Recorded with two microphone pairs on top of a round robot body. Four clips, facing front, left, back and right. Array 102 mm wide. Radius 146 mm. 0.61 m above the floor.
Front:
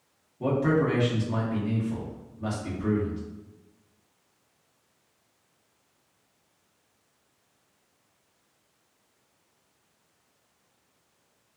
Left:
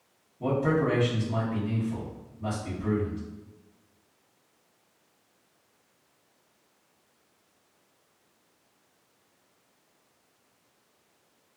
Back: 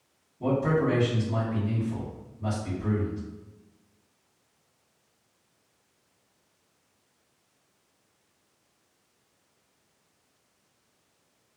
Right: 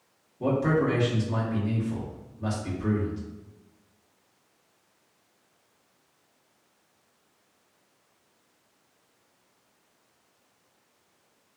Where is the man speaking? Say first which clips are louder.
Right 1 dB, front 1 dB; 45° right, 1.8 m.